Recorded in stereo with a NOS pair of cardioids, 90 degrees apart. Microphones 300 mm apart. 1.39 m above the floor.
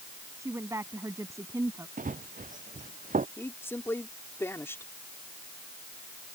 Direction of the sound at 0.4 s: 10° right.